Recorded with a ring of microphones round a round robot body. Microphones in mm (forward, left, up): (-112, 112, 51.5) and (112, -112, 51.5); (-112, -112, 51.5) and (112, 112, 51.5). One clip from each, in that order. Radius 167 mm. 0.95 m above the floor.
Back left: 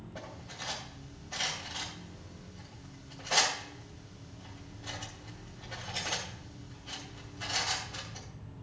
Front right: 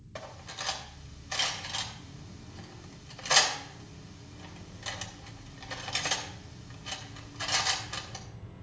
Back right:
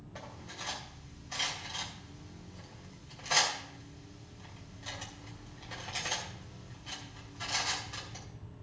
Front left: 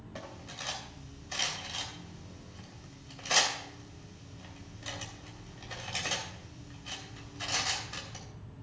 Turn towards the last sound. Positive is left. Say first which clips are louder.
# front right 4 dB, front left 2 dB
turn(degrees=-30)